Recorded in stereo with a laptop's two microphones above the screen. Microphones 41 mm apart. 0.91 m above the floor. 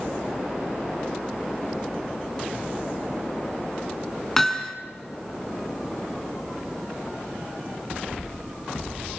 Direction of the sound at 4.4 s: 5° left (ahead or behind).